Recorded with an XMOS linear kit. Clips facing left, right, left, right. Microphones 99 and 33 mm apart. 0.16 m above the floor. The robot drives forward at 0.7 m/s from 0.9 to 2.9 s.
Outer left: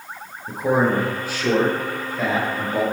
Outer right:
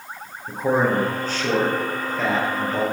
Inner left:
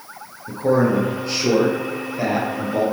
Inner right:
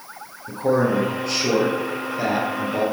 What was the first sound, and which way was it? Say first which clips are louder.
A man speaking: outer left 1 dB, inner left 2 dB; 10° left (ahead or behind).